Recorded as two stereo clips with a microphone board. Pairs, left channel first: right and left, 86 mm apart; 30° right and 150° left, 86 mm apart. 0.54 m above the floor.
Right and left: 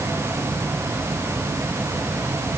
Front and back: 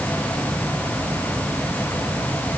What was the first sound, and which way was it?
Only background noise.